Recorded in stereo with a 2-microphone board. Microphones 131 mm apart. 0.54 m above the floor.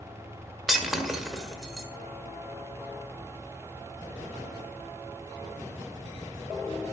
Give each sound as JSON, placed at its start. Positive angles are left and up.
{"t": 0.7, "sound": "breaking glass", "side_deg": -5, "distance_m": 1.3}